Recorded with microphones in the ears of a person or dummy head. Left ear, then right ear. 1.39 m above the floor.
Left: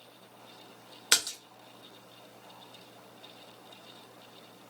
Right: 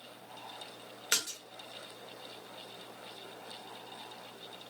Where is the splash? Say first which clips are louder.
Left 5 dB; 30° left (ahead or behind), 0.5 m.